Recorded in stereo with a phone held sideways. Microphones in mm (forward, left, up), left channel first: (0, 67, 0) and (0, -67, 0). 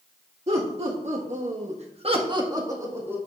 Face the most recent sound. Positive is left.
turn(degrees=-15)  # may be behind; listen again after turning